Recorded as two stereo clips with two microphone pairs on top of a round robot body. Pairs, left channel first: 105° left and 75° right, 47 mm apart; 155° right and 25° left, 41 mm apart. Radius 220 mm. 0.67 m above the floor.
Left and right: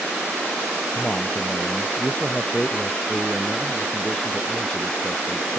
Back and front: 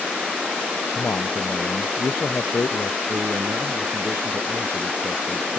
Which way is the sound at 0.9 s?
175° left.